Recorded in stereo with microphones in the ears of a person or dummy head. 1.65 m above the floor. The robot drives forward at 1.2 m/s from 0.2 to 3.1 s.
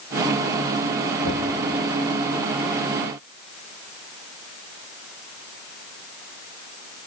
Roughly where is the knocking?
Left.